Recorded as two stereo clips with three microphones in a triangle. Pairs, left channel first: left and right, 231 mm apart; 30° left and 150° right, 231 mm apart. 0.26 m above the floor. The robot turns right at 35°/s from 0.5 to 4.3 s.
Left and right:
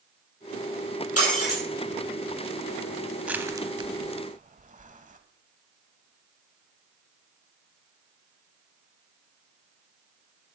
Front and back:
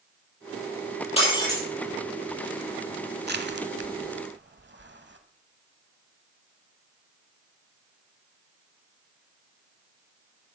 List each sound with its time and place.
1.2 s breaking glass: 95° left, 5 m; by 1.6 s 110° left, 5 m
3.2 s crushing: 175° right, 1.0 m; by 5.2 s 135° right, 1.0 m